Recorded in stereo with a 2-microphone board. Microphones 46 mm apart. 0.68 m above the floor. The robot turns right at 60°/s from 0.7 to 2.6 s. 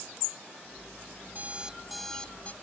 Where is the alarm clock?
40° right; by 2.5 s 35° left.